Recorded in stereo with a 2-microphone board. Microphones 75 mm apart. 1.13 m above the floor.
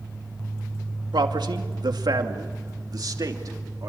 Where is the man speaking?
75° right (ahead or behind), 2.5 m; by 3.9 s 50° right (ahead or behind), 3 m.